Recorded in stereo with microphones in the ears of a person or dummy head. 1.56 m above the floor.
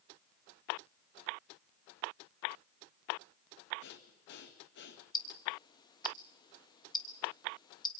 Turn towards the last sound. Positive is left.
turn(degrees=25)  # may be behind; listen again after turning